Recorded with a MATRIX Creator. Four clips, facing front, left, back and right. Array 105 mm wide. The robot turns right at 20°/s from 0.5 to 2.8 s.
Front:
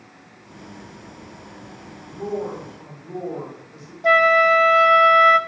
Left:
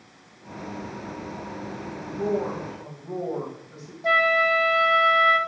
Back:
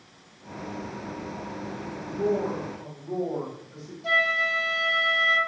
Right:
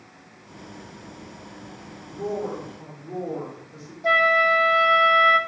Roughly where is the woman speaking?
Left.